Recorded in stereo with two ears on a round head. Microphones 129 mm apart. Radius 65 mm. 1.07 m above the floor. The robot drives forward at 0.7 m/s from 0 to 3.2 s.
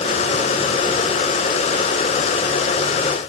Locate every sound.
Only background noise.